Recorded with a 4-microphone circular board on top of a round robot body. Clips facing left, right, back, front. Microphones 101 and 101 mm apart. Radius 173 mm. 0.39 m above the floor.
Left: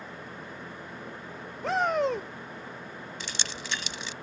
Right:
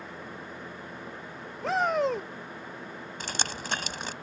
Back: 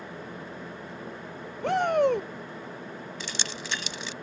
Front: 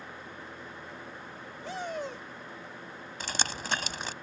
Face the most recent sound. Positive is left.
turn(degrees=-45)